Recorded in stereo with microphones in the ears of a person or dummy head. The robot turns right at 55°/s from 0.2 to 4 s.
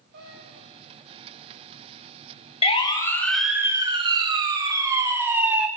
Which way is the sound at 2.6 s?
35° left (ahead or behind).